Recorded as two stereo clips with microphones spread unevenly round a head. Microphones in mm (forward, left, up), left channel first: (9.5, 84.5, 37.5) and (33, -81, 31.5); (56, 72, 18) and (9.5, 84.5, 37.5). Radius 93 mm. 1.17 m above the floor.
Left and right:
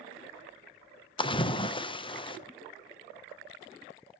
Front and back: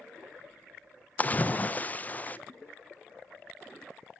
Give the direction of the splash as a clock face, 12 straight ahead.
11 o'clock.